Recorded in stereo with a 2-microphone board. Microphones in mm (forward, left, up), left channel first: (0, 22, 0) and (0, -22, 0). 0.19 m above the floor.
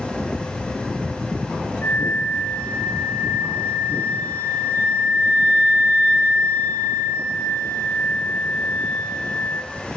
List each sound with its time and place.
1.8 s a flute: 55° left (ahead or behind), 1.6 m